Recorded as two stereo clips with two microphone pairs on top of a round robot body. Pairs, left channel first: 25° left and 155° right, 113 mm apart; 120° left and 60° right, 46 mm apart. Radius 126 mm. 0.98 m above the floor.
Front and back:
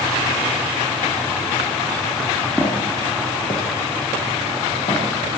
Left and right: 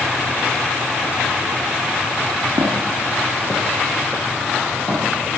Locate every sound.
2.6 s footsteps: 45° right, 1.0 m; by 5.0 s 70° left, 3.5 m